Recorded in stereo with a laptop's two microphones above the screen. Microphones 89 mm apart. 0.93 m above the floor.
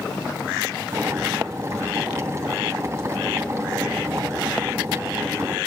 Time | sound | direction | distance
0.9 | boiling | 35° right (ahead or behind) | 3.5 m